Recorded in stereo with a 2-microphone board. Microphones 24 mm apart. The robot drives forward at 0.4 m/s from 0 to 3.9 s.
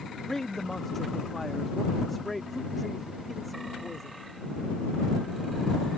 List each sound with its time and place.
0.3 s a man speaking: 15° left (ahead or behind); by 4.3 s 5° left (ahead or behind)